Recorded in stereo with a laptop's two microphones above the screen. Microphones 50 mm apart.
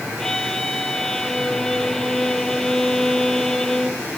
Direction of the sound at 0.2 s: 10° left (ahead or behind).